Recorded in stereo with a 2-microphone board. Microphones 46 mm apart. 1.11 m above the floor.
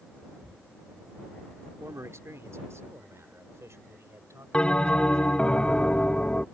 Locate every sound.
1.8 s a man speaking: 85° right
4.5 s a bell: 20° left (ahead or behind)